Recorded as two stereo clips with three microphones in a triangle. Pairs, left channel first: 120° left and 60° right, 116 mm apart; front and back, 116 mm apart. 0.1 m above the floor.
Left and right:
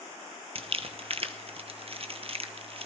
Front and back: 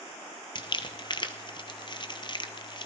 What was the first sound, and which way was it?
Crumpling, 40° right.